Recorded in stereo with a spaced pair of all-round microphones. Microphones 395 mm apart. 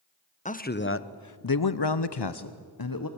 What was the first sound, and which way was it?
A man speaking, 20° left (ahead or behind).